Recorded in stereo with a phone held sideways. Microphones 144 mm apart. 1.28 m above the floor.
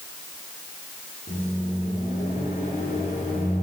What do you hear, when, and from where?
1.3 s a microwave: 75° left (ahead or behind), 3.5 m